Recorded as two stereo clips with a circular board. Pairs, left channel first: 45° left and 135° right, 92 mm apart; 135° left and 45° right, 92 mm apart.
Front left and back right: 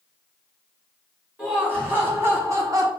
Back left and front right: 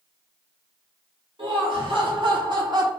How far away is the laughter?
About 1.8 m.